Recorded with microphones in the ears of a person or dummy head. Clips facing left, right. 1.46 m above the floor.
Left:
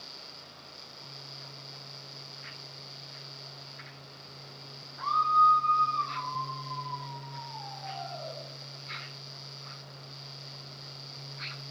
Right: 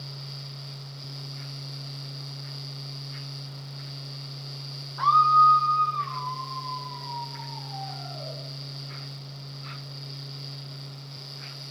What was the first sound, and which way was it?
A scream, 75° right (ahead or behind).